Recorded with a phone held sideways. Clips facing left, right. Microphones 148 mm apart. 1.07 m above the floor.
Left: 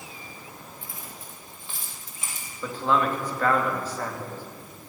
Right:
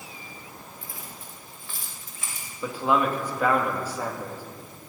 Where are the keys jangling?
25° left (ahead or behind), 3 m.